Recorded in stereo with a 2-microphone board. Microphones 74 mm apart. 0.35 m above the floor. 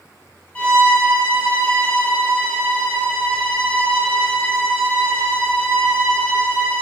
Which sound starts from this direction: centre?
A violin, at 0.6 s.